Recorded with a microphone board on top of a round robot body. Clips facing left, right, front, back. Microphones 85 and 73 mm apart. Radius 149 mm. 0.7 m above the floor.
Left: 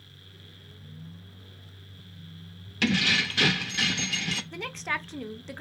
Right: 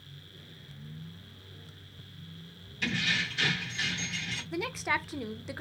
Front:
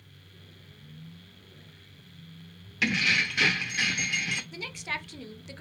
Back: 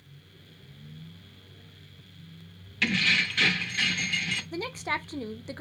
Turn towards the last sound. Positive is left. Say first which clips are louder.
# right 6 dB, back 5 dB
turn(degrees=-170)